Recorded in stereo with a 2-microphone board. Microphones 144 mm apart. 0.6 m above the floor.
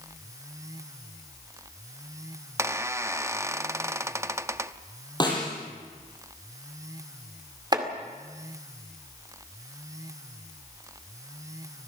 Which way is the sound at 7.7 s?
30° right (ahead or behind).